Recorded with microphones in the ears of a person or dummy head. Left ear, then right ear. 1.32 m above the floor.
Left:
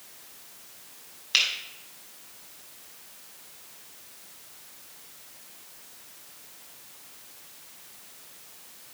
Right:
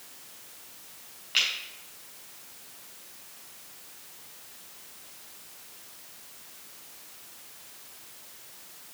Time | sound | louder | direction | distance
1.3 | a finger snap | left 2 dB | 75° left (ahead or behind) | 5 m